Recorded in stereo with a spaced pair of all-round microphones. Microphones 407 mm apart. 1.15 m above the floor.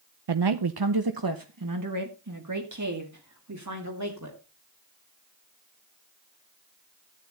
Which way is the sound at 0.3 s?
75° right (ahead or behind).